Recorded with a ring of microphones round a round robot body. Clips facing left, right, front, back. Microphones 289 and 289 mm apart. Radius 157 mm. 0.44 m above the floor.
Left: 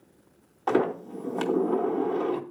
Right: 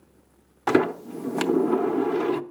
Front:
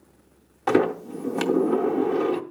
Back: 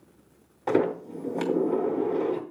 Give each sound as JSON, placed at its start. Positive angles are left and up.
{"t": 0.7, "sound": "a sliding door", "azimuth_deg": -60, "distance_m": 0.7}